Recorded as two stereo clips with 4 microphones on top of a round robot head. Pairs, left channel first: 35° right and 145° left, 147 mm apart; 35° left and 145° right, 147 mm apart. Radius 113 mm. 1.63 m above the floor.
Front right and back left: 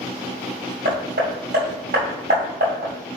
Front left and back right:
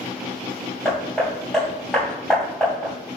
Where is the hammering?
125° left, 2.5 m.